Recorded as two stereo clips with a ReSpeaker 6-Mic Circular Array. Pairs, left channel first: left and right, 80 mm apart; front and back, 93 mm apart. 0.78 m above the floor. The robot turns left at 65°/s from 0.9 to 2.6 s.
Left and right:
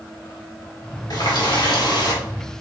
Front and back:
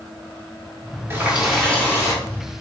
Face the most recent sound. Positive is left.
turn(degrees=20)